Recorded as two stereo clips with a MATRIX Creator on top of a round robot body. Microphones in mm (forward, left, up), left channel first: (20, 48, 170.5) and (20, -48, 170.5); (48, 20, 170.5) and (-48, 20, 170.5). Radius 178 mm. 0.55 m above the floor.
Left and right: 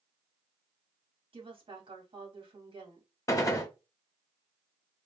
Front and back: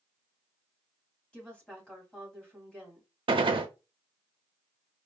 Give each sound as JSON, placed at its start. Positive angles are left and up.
{"t": 1.3, "sound": "a woman speaking", "azimuth_deg": -80, "distance_m": 1.8}
{"t": 3.3, "sound": "a gunshot", "azimuth_deg": 145, "distance_m": 0.6}